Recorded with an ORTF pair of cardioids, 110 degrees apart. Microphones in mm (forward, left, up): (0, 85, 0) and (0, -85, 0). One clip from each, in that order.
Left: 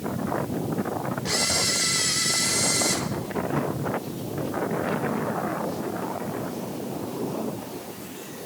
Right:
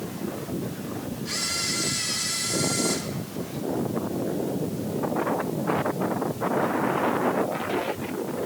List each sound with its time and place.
1.2 s a camera shutter: 45° left, 1.3 m